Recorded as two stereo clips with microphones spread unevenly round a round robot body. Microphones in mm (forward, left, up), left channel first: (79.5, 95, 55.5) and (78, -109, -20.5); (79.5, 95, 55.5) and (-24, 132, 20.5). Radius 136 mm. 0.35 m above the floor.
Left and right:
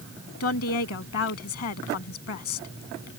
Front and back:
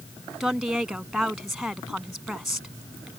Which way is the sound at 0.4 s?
75° left.